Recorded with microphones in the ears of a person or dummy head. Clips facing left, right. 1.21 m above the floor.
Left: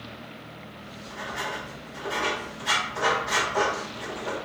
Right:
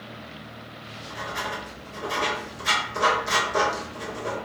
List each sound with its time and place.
0.8 s writing: 65° right (ahead or behind), 1.6 m